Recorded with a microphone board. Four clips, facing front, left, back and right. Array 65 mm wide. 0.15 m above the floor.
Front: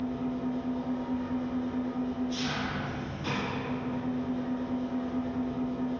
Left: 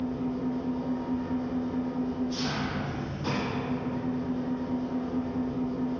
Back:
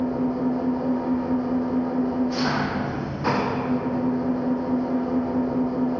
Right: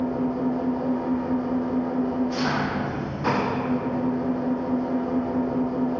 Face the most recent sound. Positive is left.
turn(degrees=-145)